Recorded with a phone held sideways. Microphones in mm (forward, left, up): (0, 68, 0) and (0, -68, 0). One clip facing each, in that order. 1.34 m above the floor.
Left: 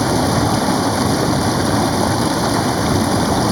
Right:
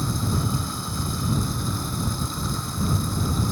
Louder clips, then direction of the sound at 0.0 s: Left 12 dB; 80° left.